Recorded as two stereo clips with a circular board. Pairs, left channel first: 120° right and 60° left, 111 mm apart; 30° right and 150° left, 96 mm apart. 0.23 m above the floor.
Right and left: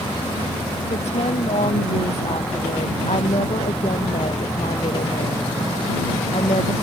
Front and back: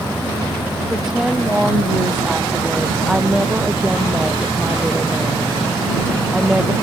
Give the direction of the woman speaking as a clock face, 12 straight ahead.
4 o'clock.